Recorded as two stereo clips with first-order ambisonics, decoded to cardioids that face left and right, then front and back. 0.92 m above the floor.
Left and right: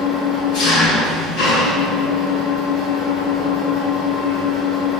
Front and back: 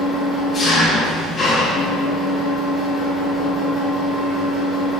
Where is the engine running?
70° left, 3.5 m.